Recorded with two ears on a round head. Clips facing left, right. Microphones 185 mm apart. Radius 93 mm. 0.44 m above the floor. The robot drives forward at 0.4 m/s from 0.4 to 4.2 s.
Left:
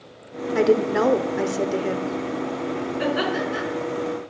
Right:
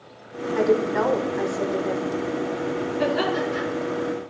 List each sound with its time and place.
0.6 s a woman speaking: 40° left (ahead or behind), 1.0 m; by 2.1 s 35° left (ahead or behind), 1.1 m
3.0 s laughter: 10° left (ahead or behind), 4 m